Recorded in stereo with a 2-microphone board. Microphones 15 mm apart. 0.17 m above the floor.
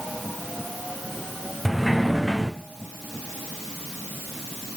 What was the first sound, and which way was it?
A sliding door, 5° right (ahead or behind).